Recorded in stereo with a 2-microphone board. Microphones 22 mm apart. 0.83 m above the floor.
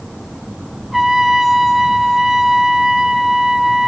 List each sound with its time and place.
0.9 s a trumpet: 10° right (ahead or behind), 1.6 m